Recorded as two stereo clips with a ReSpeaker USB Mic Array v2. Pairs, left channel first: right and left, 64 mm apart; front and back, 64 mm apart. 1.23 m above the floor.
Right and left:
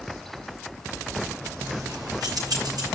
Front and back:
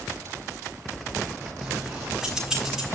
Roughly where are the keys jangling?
Left.